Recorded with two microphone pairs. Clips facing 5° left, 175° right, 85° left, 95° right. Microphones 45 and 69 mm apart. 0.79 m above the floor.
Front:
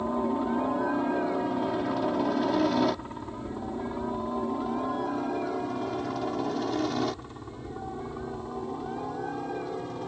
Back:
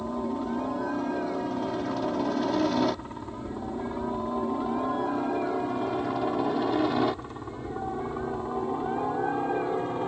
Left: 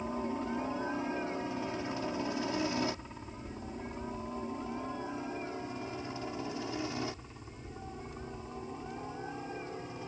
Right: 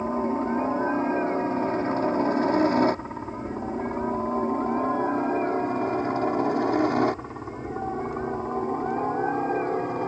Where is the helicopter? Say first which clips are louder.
Front 3 dB, right 10 dB; 60° right; by 10.1 s 115° right.